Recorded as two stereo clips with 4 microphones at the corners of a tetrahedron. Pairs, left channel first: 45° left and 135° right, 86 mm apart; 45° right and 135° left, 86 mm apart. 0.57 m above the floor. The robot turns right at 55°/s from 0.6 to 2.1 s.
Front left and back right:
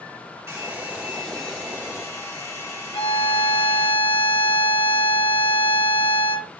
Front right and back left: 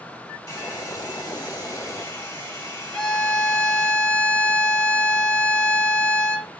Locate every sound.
0.5 s a hair dryer: 80° right, 1.5 m; by 3.9 s 5° left, 1.5 m
2.9 s a violin: 35° left, 0.6 m